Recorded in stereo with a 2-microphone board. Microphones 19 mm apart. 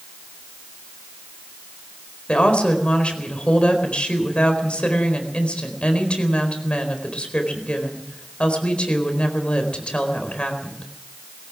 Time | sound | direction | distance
2.3 | a woman speaking | 70° left (ahead or behind) | 4 m